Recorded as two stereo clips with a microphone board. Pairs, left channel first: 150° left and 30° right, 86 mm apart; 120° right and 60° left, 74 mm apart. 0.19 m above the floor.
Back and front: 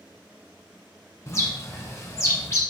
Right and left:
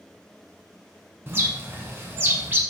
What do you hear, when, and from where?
1.3 s a bird: 105° left, 0.7 m